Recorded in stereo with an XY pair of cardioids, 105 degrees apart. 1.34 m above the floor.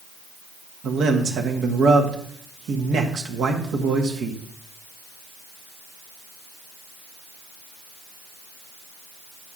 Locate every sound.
0.8 s a man speaking: 65° right, 1.9 m